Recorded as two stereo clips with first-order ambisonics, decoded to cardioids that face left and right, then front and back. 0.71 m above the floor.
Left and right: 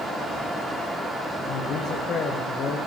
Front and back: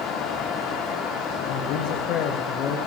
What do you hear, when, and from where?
1.4 s a man speaking: 35° left, 2.5 m